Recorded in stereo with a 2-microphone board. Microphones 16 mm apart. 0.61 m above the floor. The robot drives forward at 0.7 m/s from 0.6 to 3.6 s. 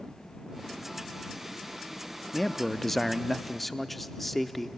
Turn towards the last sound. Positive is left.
turn(degrees=5)  # may be behind; listen again after turning